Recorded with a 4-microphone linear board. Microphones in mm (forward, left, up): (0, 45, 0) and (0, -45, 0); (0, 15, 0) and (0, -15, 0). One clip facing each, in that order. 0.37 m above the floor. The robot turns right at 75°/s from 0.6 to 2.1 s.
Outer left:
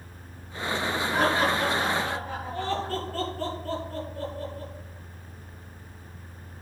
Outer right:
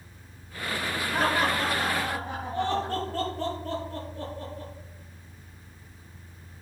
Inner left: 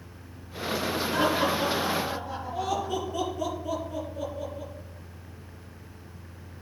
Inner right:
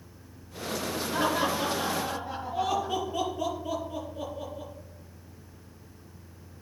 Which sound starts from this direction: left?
Laughter, at 1.1 s.